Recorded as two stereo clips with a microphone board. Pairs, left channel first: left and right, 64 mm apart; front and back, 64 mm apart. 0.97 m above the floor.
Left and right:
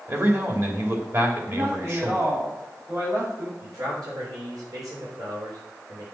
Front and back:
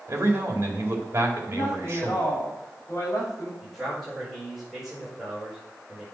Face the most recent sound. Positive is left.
turn(degrees=-90)